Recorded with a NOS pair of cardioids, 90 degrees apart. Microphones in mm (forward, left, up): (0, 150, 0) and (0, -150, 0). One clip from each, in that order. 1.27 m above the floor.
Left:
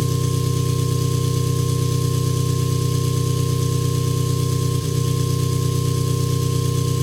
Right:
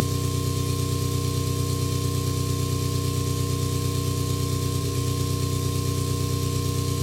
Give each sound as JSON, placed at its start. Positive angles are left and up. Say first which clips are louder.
{"t": 0.0, "sound": "an engine running", "louder": "left 3 dB", "azimuth_deg": 30, "distance_m": 3.0}